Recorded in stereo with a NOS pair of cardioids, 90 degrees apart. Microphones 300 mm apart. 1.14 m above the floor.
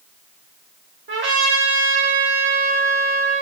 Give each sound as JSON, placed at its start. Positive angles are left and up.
{"t": 1.1, "sound": "a trumpet", "azimuth_deg": -40, "distance_m": 1.0}